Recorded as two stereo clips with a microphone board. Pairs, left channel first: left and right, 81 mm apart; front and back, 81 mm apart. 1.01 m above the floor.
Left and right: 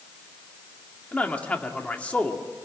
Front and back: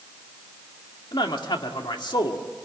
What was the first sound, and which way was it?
A man speaking, 15° left.